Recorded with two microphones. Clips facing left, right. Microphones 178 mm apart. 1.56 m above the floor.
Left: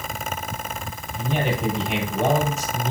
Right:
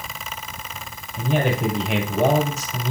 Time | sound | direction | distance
1.2 | a man speaking | 80° right | 7 m